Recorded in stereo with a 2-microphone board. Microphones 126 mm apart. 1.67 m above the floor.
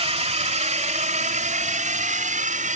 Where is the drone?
55° right (ahead or behind); by 2.8 s 85° right.